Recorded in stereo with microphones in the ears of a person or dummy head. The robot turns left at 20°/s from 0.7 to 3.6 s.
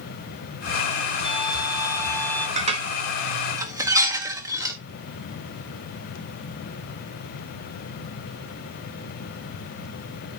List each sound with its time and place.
1.2 s a violin: 30° left (ahead or behind), 6 m; by 2.5 s 5° left (ahead or behind), 6 m
2.6 s dishes clattering: 35° right (ahead or behind), 1.5 m; by 4.8 s 20° right (ahead or behind), 1.5 m